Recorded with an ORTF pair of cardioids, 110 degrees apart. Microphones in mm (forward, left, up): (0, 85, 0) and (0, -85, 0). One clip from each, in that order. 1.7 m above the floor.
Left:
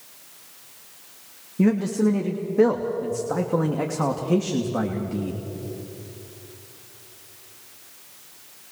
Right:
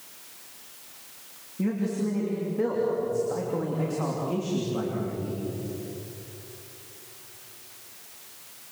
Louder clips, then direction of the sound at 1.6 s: Left 7 dB; 55° left.